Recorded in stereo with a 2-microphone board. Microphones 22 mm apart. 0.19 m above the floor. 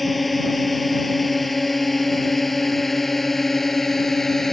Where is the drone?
Centre (ahead or behind); by 4.5 s 15° left (ahead or behind).